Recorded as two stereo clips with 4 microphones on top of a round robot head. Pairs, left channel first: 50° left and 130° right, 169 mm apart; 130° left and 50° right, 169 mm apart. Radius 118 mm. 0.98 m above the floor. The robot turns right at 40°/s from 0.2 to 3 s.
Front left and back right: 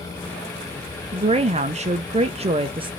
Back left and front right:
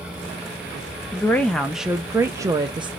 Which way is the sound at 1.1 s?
160° right.